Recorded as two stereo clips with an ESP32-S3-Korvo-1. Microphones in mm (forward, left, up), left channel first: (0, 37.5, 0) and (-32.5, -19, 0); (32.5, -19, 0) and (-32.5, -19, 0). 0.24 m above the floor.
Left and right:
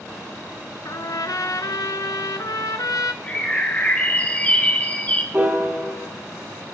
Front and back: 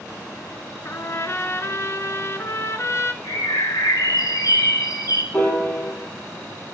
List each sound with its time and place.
0.8 s a trumpet: 45° left, 0.6 m
3.2 s a bird: 5° right, 0.9 m
5.3 s a piano: 60° right, 1.7 m